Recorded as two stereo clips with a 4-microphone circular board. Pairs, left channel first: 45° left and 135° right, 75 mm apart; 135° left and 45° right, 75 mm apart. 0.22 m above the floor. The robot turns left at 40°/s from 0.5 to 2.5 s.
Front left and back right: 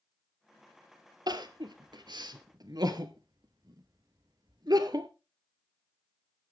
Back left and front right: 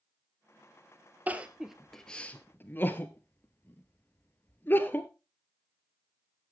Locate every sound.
1.3 s crying: 115° right, 1.1 m; by 5.1 s 165° right, 1.1 m